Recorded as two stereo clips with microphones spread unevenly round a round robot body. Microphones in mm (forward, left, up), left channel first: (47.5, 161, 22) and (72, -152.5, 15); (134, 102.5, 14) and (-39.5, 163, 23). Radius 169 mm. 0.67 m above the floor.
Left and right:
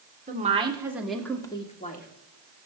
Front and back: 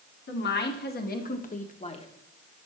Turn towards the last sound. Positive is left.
turn(degrees=35)